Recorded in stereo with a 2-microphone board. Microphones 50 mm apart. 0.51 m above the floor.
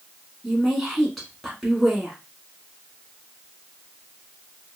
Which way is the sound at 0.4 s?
5° left (ahead or behind).